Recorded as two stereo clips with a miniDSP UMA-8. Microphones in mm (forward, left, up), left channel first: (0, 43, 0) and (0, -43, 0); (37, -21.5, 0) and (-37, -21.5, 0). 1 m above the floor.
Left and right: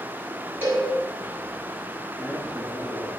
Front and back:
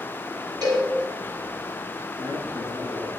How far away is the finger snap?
No finger snap in this recording.